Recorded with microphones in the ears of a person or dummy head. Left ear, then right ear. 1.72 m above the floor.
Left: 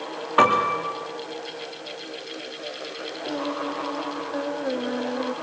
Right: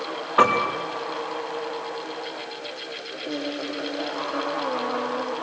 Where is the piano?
10° left (ahead or behind), 3.5 m.